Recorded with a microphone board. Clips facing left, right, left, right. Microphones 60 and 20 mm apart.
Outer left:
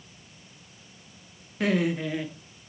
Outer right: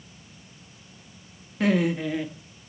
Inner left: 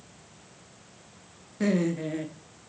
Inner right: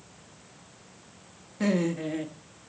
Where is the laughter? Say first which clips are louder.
Outer right 2 dB, even; centre (ahead or behind), 1.4 m.